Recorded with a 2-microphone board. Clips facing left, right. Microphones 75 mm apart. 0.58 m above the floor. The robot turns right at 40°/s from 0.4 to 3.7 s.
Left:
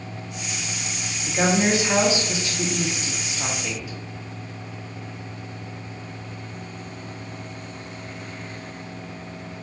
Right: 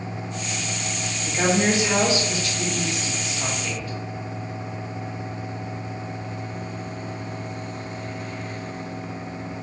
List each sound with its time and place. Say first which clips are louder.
1.2 s a woman speaking: left 1 dB; 15° left (ahead or behind), 0.8 m; by 3.9 s 10° left (ahead or behind), 0.8 m